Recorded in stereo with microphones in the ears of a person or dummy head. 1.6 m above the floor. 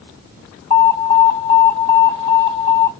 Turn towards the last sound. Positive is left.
turn(degrees=70)  # may be behind; listen again after turning